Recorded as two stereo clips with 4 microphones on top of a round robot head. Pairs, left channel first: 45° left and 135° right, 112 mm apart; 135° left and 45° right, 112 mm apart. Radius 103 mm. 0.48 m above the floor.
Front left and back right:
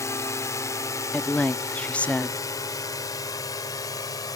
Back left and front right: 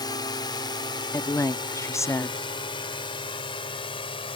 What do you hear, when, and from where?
0.0 s a drone: 100° left
1.1 s a woman speaking: 110° left